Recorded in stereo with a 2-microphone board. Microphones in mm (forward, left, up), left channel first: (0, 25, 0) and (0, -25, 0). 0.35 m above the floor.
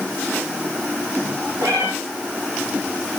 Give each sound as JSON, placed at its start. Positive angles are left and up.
{"t": 1.6, "sound": "a cat meowing", "side_deg": -80, "distance_m": 3.0}